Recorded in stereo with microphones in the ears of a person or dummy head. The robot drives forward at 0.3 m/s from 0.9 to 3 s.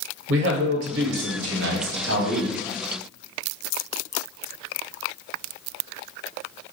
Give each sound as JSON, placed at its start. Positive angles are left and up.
{"t": 0.3, "sound": "a man speaking", "side_deg": -75, "distance_m": 1.0}